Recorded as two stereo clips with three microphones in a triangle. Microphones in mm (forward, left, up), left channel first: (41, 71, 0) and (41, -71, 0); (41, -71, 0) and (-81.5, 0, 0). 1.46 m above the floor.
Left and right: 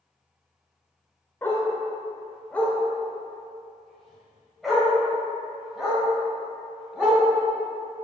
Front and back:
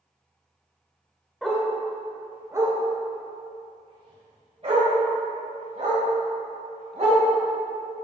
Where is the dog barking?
60° left, 1.2 m; by 8.0 s 175° right, 3.5 m.